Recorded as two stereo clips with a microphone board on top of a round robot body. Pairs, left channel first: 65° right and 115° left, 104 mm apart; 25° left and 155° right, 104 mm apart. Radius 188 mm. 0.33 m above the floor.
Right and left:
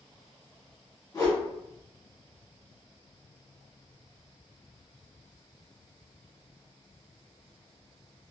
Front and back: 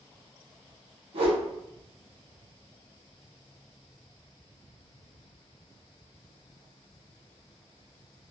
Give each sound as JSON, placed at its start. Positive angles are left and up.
{"t": 1.1, "sound": "a whoosh", "azimuth_deg": -130, "distance_m": 2.5}